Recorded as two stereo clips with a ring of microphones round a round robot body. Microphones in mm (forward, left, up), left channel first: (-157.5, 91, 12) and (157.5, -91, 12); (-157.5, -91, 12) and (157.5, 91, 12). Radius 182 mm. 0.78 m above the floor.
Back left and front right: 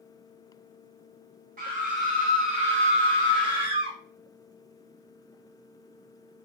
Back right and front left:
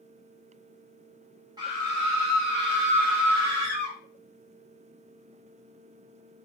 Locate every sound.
1.6 s a scream: 30° right, 0.7 m; by 4.0 s 50° left, 1.7 m